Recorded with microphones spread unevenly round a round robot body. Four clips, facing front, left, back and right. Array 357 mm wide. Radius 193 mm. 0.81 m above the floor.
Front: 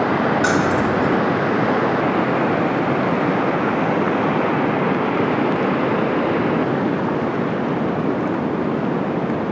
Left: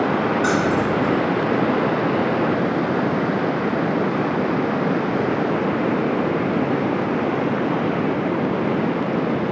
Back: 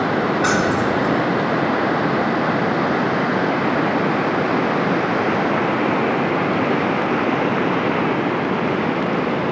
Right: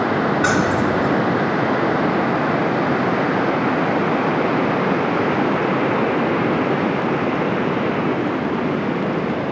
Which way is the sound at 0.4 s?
85° right.